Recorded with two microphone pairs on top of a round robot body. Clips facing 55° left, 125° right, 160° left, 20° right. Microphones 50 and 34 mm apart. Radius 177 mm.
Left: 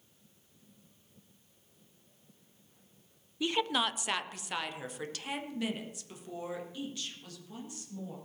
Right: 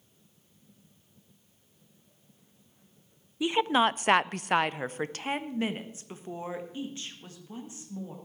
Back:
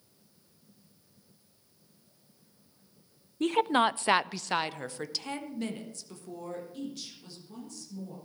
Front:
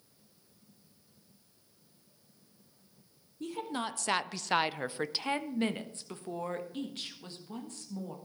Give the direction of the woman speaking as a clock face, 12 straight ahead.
7 o'clock.